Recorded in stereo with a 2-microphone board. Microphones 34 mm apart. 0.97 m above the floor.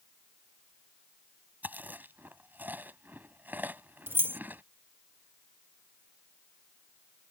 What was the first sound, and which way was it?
Chewing, 60° right (ahead or behind).